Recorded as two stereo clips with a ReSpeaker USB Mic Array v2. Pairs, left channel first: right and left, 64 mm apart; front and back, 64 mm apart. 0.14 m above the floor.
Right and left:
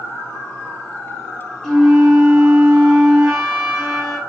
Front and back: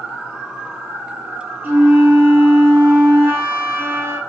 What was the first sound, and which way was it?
A flute, 170° right.